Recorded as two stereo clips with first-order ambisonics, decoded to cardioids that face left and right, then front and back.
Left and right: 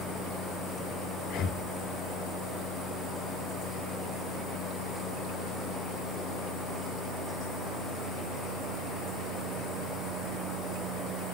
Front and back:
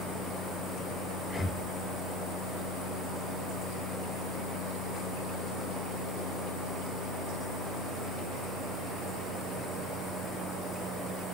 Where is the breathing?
70° left, 0.6 m.